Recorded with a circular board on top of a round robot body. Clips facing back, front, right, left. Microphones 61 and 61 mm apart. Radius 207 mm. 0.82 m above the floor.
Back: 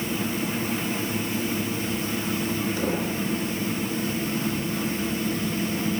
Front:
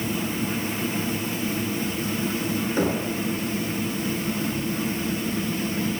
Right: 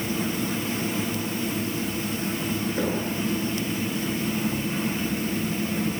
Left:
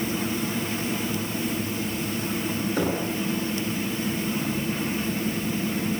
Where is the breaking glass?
I don't hear breaking glass.